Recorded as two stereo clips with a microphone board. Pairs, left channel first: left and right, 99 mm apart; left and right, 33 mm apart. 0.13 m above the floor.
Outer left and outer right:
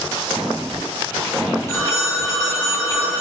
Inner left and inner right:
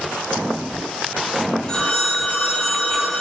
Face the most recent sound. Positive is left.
turn(degrees=25)  # may be behind; listen again after turning